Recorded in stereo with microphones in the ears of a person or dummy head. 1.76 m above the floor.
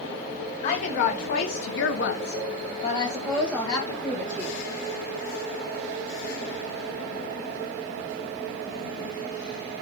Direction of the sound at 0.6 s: 40° left (ahead or behind).